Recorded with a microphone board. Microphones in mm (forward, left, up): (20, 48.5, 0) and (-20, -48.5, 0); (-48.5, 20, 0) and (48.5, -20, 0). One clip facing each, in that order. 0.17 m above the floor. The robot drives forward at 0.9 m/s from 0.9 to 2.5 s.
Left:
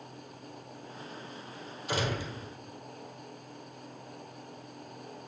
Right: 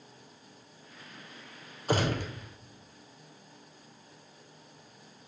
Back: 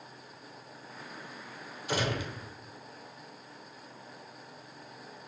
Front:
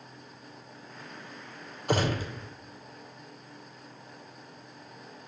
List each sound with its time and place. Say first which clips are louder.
1.9 s a gunshot: right 4 dB, front 4 dB; 65° right, 1.4 m; by 2.3 s 80° right, 1.3 m